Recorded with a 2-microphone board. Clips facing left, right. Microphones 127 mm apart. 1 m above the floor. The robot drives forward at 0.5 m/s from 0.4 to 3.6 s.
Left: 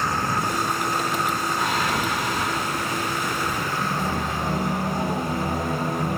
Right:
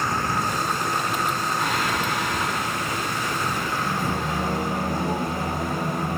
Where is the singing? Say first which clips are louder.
Left 1 dB; 20° left (ahead or behind), 0.9 m; by 6.2 s 10° left (ahead or behind), 1.8 m.